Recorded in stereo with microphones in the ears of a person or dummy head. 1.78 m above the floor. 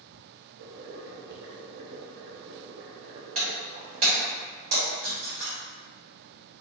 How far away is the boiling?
About 0.6 m.